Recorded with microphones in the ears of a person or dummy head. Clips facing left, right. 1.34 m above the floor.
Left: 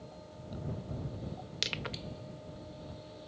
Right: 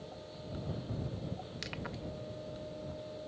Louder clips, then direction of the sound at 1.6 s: Left 1 dB; 45° left (ahead or behind).